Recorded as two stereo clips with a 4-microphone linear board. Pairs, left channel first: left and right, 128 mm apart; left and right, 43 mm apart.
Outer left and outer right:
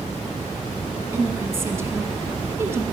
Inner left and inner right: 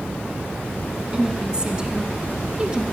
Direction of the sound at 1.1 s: 20° right (ahead or behind).